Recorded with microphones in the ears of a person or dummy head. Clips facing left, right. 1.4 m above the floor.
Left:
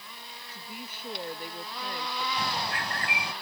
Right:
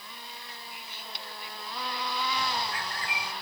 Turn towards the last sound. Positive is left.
turn(degrees=55)  # may be behind; listen again after turning